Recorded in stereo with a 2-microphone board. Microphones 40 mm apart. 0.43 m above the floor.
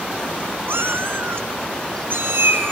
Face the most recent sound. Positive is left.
turn(degrees=-70)  # may be behind; listen again after turning